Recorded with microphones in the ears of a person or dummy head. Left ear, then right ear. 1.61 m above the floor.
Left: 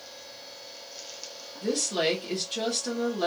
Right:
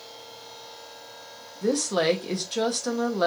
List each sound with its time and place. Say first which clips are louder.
1.6 s a woman speaking: right 3 dB; 35° right (ahead or behind), 0.7 m